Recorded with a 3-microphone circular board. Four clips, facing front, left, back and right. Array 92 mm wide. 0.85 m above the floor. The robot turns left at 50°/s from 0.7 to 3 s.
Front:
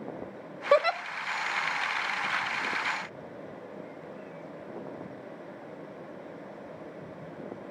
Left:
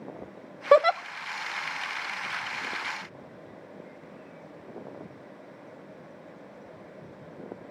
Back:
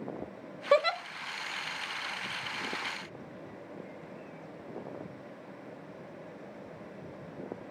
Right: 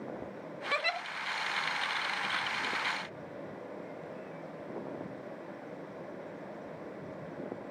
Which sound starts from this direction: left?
A giggle, at 0.7 s.